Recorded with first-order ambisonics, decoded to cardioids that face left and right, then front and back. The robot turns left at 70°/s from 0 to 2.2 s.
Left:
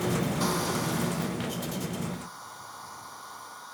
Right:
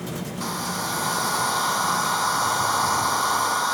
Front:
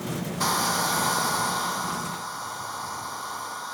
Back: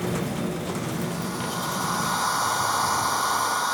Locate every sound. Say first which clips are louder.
0.4 s a hair dryer: right 5 dB, front 6 dB; 5° left; by 3.8 s 120° right